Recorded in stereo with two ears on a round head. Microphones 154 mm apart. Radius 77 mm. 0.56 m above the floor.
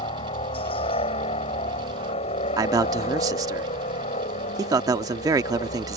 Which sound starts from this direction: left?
A helicopter, at 0.0 s.